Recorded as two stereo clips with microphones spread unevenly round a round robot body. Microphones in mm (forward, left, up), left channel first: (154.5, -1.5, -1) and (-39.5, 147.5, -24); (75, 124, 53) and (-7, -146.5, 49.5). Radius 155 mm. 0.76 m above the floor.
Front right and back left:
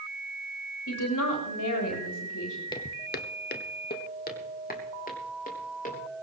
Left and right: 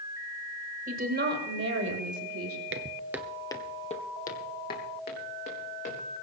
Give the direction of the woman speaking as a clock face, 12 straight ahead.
2 o'clock.